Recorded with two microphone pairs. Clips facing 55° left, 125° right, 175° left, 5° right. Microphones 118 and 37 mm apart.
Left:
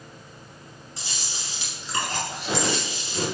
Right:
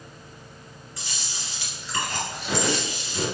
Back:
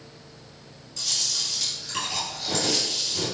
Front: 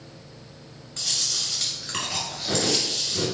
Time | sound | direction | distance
1.0 | chewing | 5° left | 1.9 m